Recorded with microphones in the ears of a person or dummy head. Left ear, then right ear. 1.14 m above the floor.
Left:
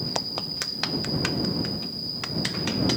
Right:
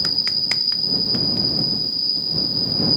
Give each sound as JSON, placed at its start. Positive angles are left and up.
{"t": 0.0, "sound": "an insect", "side_deg": -35}